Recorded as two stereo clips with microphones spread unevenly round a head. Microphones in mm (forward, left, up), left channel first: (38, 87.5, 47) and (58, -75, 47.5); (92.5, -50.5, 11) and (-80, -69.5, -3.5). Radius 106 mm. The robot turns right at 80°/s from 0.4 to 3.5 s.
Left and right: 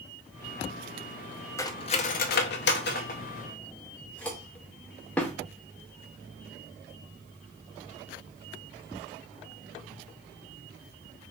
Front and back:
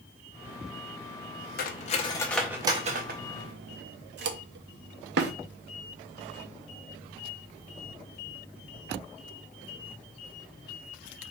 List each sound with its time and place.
1.6 s cutlery clinking: 25° left, 0.5 m; by 5.3 s straight behind, 0.5 m